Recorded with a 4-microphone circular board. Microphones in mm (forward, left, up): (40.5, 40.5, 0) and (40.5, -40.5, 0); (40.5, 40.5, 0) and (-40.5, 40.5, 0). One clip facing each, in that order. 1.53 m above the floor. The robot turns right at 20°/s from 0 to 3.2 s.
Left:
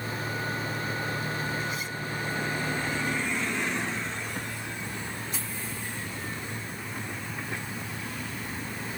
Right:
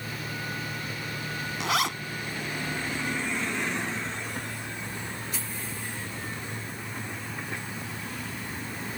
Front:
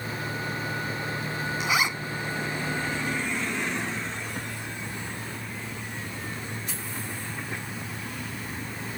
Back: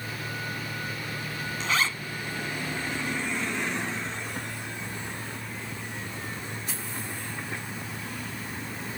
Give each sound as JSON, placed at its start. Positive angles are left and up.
{"t": 1.6, "sound": "a zipper", "azimuth_deg": -80}